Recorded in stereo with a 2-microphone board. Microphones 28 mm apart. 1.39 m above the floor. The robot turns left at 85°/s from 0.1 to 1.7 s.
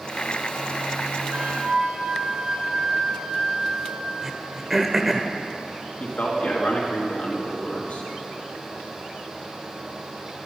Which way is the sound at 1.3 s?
120° right.